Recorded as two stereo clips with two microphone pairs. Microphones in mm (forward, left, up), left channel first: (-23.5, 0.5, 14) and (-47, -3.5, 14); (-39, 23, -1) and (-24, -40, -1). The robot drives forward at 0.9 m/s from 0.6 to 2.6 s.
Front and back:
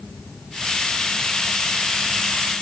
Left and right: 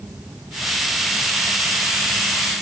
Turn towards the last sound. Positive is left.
No sound to turn to.